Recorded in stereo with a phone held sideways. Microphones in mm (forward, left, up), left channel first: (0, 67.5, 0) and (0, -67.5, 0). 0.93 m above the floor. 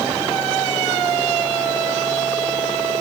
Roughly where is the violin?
I don't hear a violin.